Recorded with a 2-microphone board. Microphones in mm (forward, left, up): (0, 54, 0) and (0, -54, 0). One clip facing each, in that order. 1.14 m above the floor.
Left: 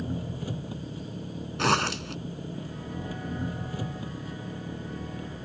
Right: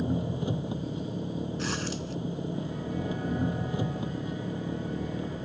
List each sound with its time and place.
0.0 s an engine running: 20° right (ahead or behind)
1.6 s a zipper: 70° left (ahead or behind)